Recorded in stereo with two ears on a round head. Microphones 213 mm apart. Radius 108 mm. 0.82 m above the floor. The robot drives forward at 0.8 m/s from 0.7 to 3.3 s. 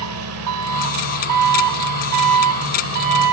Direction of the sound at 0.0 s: 65° right (ahead or behind).